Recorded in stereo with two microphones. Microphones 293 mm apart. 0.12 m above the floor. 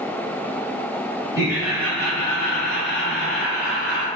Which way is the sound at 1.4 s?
15° right (ahead or behind).